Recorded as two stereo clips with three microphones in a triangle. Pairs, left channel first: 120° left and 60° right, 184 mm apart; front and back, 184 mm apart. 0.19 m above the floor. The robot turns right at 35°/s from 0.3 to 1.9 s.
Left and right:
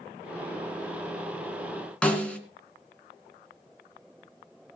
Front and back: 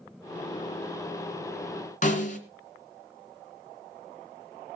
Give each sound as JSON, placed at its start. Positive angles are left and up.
{"t": 2.0, "sound": "a snare drum", "azimuth_deg": 35, "distance_m": 2.5}